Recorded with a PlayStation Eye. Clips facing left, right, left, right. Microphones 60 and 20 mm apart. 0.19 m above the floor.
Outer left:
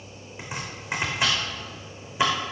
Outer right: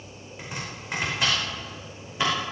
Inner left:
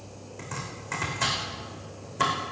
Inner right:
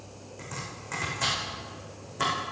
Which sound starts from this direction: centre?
Chopping, at 0.4 s.